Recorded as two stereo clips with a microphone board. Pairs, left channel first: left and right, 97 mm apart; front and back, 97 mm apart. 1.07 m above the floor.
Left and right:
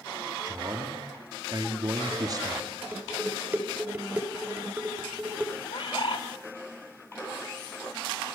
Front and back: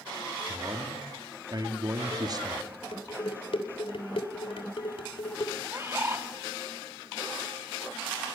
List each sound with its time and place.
0.5 s a man speaking: 135° right, 2.5 m
2.9 s dishes clattering: 20° right, 3 m
5.6 s a bird: 120° left, 2.5 m